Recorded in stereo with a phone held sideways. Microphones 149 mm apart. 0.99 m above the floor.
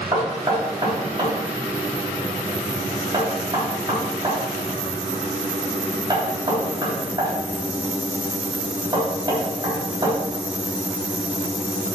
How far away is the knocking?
About 3.5 m.